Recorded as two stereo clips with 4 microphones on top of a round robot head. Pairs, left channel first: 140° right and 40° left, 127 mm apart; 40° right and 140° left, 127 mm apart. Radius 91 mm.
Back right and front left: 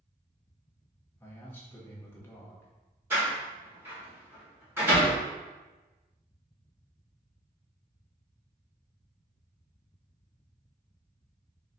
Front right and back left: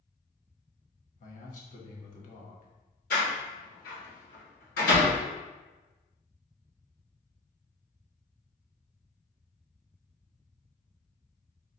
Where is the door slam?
30° right, 1.6 m.